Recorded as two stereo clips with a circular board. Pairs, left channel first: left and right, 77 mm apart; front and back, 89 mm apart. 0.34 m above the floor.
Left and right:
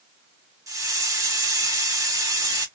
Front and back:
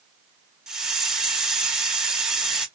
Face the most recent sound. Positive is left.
turn(degrees=-100)